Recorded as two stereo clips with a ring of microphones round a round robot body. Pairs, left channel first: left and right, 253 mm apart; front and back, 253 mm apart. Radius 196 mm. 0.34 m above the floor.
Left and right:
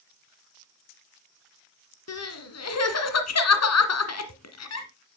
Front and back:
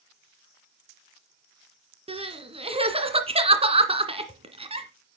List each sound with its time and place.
2.1 s crying: 110° left, 2 m